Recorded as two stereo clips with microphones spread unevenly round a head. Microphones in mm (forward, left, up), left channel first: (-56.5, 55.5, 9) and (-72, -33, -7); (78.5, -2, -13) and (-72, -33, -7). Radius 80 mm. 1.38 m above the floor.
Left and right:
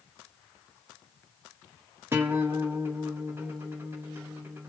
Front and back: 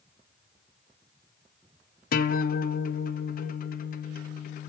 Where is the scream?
I don't hear a scream.